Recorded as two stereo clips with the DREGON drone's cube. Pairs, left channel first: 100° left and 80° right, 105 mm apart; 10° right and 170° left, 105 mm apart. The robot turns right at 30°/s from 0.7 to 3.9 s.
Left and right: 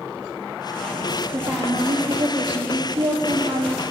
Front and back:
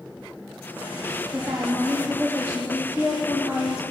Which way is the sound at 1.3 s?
95° right.